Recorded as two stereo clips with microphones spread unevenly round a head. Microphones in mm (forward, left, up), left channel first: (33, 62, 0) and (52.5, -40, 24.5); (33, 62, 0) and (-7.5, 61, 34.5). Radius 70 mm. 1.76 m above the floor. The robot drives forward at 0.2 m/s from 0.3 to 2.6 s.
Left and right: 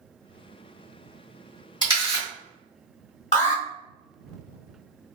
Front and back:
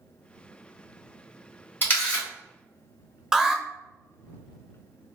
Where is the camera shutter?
105° left, 1.7 m; by 2.3 s 110° left, 1.7 m.